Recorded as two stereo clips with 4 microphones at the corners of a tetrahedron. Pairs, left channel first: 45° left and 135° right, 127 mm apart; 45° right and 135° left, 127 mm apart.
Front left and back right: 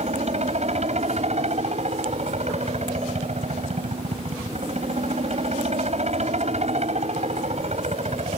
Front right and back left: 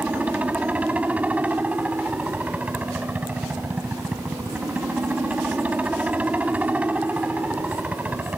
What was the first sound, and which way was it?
A helicopter, 150° right.